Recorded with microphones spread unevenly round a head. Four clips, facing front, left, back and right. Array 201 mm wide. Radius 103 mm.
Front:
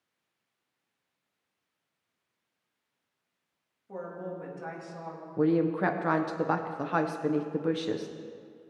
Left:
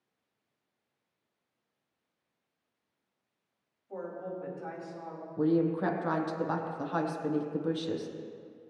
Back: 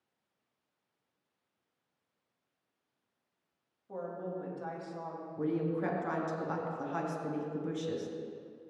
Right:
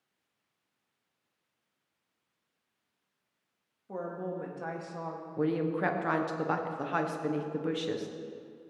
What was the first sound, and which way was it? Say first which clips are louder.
A woman speaking: right 2 dB, front 1 dB; 80° right.